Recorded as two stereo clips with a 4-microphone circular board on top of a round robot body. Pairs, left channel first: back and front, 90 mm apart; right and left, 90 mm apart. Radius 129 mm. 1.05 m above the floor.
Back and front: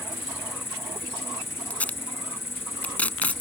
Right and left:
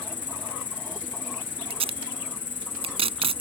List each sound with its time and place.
0.0 s an insect: 115° right
1.7 s tape being pulled: 105° left